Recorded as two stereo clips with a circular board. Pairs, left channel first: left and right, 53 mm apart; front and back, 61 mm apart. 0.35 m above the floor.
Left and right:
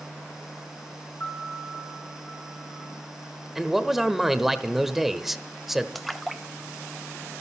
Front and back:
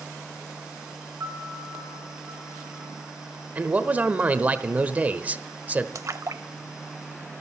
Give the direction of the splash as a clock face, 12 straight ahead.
6 o'clock.